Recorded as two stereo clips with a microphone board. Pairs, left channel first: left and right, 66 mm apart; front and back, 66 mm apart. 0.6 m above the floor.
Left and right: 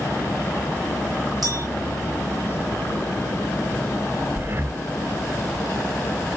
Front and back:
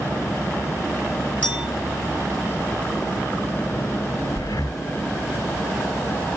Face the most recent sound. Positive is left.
turn(degrees=-30)